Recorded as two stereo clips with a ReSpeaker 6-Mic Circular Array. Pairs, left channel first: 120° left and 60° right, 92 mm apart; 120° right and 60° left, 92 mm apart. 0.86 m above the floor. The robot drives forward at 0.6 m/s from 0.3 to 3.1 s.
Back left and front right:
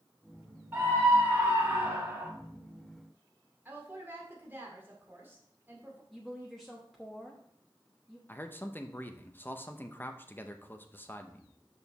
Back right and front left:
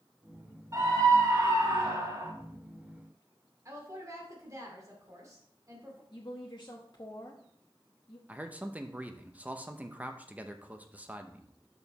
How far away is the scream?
About 3 m.